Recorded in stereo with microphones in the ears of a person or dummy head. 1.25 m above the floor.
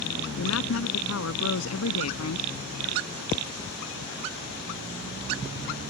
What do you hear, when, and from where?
0.4 s a woman speaking: 85° left